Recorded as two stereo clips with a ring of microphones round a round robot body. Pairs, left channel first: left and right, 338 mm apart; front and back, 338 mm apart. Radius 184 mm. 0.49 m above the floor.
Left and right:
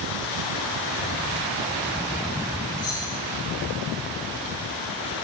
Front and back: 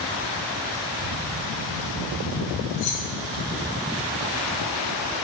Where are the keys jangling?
10° left, 2.5 m.